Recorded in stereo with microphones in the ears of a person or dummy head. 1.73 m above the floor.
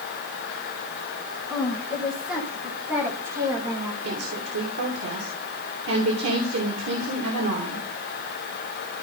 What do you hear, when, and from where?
1.5 s a woman speaking: 5° left (ahead or behind), 3 m; by 3.9 s 25° right (ahead or behind), 2.5 m
4.0 s a woman speaking: 85° right, 3 m